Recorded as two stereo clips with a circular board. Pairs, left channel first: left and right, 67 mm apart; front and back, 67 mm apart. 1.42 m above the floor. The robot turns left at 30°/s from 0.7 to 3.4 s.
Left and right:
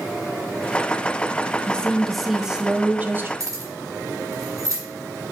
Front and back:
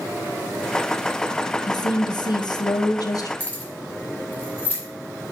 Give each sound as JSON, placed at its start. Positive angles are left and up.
{"t": 1.7, "sound": "a woman speaking", "azimuth_deg": 15, "distance_m": 0.8}
{"t": 3.4, "sound": "keys jangling", "azimuth_deg": -65, "distance_m": 2.0}